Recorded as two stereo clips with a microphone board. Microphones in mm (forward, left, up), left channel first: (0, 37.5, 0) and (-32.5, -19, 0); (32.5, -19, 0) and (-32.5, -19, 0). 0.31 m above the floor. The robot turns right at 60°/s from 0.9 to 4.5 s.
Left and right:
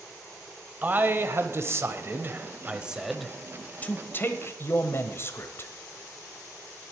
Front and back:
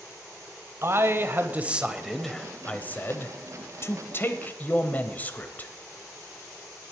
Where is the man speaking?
165° right, 1.1 m; by 5.7 s 50° left, 1.1 m.